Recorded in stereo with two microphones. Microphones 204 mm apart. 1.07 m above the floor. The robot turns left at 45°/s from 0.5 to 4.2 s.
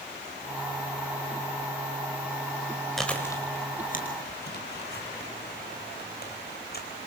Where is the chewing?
Centre (ahead or behind), 4.5 m; by 6.9 s 55° left (ahead or behind), 4.5 m.